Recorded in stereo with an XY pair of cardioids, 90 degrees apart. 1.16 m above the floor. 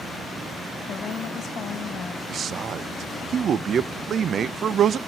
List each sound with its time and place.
0.9 s a woman speaking: 70° left, 1.8 m
2.3 s a man speaking: 60° right, 0.6 m